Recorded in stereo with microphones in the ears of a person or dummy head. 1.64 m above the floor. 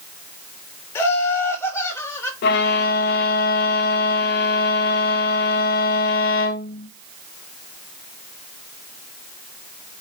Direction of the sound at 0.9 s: 20° left (ahead or behind).